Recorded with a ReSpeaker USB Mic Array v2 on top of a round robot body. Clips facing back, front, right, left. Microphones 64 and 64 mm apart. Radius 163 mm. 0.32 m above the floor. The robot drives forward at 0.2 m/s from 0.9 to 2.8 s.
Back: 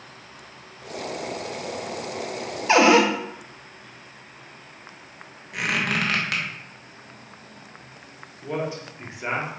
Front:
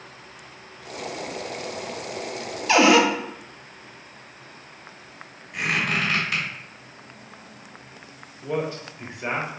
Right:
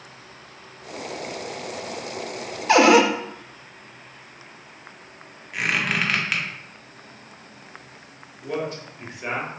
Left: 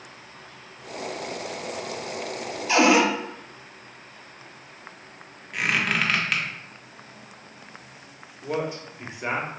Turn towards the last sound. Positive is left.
turn(degrees=125)